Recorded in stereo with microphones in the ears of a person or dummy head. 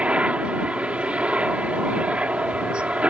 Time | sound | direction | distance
0.0 | a helicopter | 5° right (ahead or behind) | ?